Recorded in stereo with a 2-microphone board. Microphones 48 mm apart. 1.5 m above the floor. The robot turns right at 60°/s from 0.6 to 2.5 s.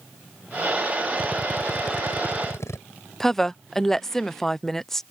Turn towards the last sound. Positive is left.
turn(degrees=10)  # may be behind; listen again after turning